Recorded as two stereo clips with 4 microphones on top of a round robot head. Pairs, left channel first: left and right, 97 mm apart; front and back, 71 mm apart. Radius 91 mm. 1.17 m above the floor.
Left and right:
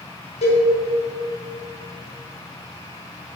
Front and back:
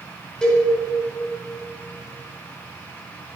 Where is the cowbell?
80° left, 2 m.